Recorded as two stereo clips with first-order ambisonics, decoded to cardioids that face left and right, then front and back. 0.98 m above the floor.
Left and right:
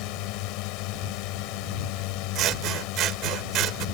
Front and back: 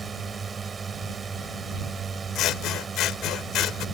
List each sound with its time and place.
0.0 s a drone: 110° left
2.4 s scissors: 45° right